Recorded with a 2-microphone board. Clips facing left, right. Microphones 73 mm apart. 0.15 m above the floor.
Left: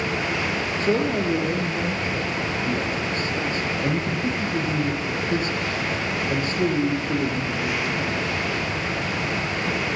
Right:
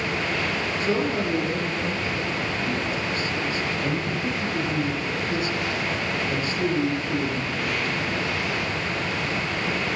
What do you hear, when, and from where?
0.8 s a man speaking: 35° left (ahead or behind), 3 m